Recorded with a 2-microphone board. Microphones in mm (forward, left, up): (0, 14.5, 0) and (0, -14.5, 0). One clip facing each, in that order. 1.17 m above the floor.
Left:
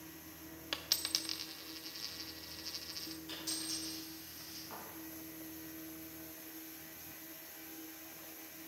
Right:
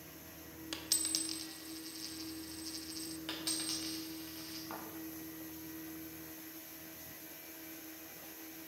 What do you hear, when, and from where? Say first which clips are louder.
0.7 s a dropped coin: left 2 dB; 25° left (ahead or behind), 0.7 m
3.3 s a dropped coin: right 3 dB; 65° right (ahead or behind), 3.5 m
4.7 s a thud: right 3 dB; 30° right (ahead or behind), 3.5 m